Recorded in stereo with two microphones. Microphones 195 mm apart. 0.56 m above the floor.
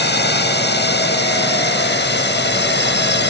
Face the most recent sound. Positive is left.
turn(degrees=55)  # may be behind; listen again after turning